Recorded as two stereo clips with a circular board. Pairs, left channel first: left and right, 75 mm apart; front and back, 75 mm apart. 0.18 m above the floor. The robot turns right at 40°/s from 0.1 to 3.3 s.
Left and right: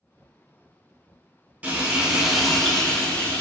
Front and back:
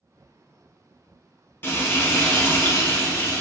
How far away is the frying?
About 0.9 m.